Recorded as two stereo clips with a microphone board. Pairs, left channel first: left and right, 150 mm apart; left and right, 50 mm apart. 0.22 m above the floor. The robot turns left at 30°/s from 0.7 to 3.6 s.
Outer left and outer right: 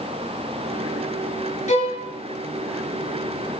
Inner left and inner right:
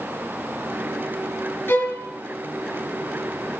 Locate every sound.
1.7 s a violin: 55° left (ahead or behind), 4 m; by 2.0 s 45° left (ahead or behind), 4 m